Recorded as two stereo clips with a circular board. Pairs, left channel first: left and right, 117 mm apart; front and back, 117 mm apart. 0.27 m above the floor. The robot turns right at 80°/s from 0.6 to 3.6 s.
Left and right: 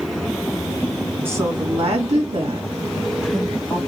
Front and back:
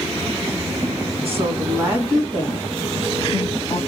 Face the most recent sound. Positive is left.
turn(degrees=25)